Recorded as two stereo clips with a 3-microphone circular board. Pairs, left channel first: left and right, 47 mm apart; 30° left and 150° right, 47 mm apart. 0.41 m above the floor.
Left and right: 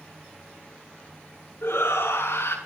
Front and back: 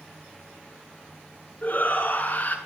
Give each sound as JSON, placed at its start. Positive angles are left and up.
{"t": 1.6, "sound": "a shout", "azimuth_deg": 80, "distance_m": 5.5}